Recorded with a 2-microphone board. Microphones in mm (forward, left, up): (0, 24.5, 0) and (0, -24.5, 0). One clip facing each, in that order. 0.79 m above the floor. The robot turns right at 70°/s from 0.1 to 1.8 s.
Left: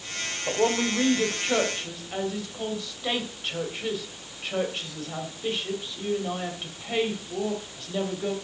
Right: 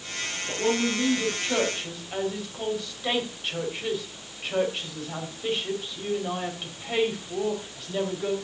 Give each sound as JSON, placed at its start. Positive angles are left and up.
{"t": 0.5, "sound": "a woman speaking", "azimuth_deg": 90, "distance_m": 3.5}